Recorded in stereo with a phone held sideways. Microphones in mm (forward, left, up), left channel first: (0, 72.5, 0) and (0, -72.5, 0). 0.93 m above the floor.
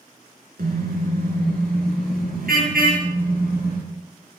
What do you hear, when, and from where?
0.6 s a car horn: 85° right, 5 m; by 3.8 s 90° right, 9.5 m